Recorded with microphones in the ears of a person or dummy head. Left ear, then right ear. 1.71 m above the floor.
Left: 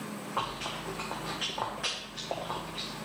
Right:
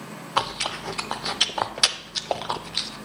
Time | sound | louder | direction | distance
0.4 | chewing | right 9 dB | 75° right (ahead or behind) | 0.6 m